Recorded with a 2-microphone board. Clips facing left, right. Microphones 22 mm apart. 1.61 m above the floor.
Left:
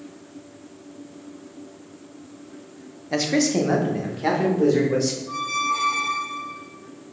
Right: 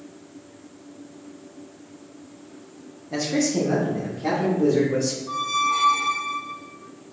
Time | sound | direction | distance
3.1 | a man speaking | 55° left (ahead or behind) | 0.7 m
5.3 | a squeak | 25° right (ahead or behind) | 1.4 m